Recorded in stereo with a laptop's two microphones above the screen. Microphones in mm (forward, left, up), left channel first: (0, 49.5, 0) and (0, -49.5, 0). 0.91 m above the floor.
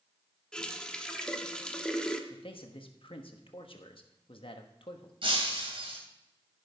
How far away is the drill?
No drill in this recording.